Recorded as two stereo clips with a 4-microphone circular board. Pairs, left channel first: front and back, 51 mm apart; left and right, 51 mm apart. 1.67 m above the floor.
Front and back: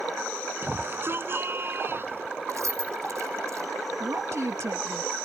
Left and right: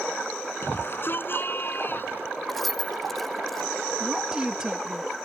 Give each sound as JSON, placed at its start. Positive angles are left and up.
{"t": 0.6, "sound": "a shout", "azimuth_deg": 135}
{"t": 2.5, "sound": "keys jangling", "azimuth_deg": 180}
{"t": 4.0, "sound": "a woman speaking", "azimuth_deg": -165}